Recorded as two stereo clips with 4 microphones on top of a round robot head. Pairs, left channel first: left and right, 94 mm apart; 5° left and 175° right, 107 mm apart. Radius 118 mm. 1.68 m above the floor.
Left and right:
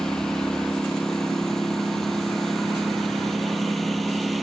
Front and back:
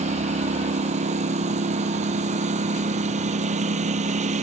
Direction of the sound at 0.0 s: 175° left.